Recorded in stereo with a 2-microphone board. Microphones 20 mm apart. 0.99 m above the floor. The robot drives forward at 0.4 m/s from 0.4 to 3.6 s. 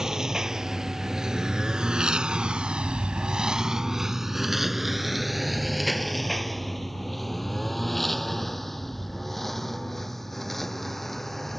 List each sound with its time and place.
0.0 s a lawn mower: 25° right (ahead or behind); by 11.6 s 5° left (ahead or behind)